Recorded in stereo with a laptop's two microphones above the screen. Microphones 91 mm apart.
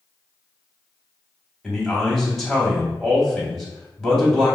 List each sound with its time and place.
1.6 s a man speaking: centre (ahead or behind), 2 m